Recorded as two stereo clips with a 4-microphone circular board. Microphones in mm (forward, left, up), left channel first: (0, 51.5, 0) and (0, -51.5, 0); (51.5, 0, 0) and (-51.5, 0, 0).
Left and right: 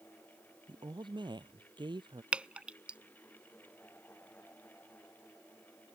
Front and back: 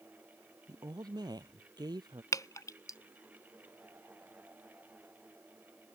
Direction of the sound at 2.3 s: 20° right.